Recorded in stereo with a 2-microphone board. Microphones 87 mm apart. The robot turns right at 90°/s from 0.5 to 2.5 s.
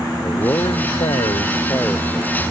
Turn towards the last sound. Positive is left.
turn(degrees=-145)